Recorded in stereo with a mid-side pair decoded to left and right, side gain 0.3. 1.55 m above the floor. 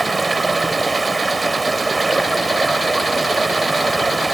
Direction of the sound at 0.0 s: 35° right.